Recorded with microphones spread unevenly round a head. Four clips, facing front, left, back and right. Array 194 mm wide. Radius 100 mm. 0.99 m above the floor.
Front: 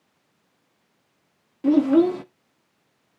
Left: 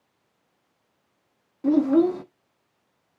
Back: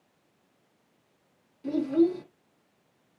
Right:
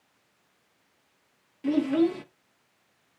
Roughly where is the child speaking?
Ahead left.